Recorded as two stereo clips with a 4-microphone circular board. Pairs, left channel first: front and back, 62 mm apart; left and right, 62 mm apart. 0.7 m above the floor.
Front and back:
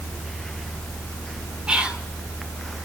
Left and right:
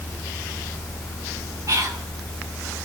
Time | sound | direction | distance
1.7 | whispering | 110° right | 2.5 m